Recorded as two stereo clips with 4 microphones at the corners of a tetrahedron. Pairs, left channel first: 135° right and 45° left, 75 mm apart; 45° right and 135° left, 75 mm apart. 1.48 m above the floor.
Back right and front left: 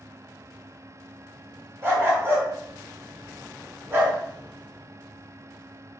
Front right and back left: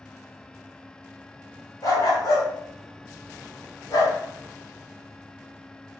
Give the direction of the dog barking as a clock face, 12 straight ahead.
12 o'clock.